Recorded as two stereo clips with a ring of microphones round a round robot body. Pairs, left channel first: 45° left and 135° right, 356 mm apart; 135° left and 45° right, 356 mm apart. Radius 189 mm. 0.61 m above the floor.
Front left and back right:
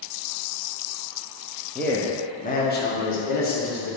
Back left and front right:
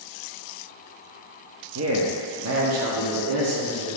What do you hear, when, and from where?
1.8 s a man speaking: 40° right, 1.1 m; by 4.0 s straight ahead, 2 m